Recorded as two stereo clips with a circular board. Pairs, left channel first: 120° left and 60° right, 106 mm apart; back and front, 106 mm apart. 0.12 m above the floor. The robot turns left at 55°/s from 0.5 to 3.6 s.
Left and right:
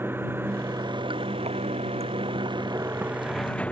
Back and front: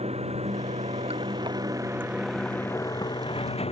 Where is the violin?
I don't hear a violin.